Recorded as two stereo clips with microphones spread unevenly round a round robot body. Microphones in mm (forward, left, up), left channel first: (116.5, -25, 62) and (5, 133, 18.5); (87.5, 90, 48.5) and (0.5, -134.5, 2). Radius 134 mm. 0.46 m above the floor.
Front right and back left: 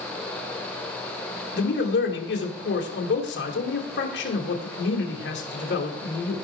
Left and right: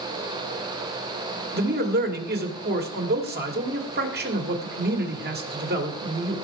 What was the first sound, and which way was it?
A man speaking, 90° right.